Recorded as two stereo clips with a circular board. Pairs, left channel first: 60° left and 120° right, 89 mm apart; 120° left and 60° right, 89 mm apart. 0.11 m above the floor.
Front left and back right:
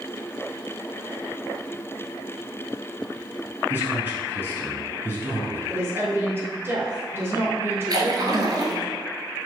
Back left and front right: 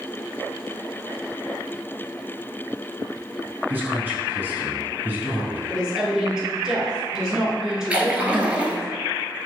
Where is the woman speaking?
135° right, 1.2 m.